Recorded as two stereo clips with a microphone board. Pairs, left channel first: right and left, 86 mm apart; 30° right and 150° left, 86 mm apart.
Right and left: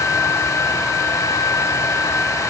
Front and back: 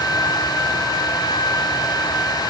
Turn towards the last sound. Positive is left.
No sound to turn to.